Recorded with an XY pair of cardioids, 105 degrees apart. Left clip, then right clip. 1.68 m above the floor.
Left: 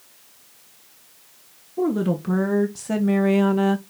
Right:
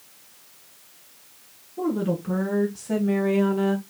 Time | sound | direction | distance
1.8 | a woman speaking | 45° left | 1.7 m